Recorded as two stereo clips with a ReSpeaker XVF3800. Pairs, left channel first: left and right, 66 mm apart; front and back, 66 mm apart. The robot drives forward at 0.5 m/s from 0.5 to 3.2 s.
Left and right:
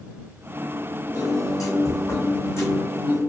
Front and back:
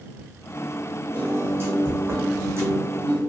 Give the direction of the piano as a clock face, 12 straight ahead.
8 o'clock.